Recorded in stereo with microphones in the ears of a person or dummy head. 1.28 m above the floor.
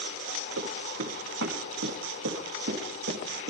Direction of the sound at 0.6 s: 75° right (ahead or behind).